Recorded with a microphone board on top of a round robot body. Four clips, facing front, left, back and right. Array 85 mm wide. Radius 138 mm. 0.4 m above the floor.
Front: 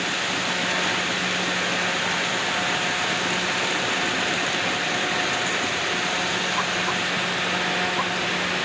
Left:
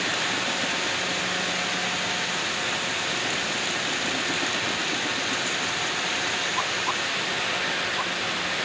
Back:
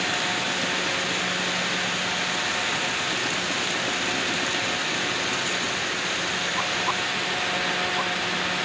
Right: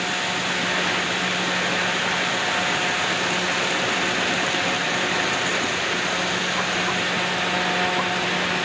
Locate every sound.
Only background noise.